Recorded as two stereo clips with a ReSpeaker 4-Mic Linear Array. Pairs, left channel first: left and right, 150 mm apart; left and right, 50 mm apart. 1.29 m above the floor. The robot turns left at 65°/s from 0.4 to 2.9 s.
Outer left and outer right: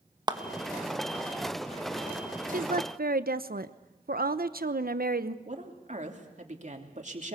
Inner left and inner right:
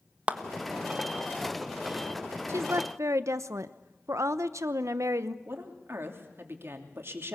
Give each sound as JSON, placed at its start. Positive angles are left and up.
{"t": 0.3, "sound": "a clap", "side_deg": -30, "distance_m": 1.1}
{"t": 2.5, "sound": "a woman speaking", "side_deg": -65, "distance_m": 1.0}
{"t": 5.5, "sound": "a woman speaking", "side_deg": -55, "distance_m": 3.0}